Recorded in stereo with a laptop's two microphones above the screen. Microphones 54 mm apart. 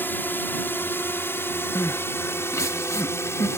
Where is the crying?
60° left (ahead or behind).